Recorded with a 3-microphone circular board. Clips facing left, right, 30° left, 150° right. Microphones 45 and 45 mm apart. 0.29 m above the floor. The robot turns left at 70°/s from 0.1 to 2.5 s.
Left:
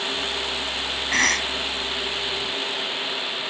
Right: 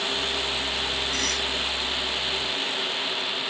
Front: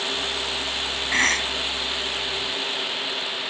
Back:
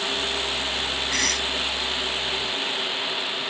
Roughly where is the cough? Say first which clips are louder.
Left 6 dB, front 7 dB; left.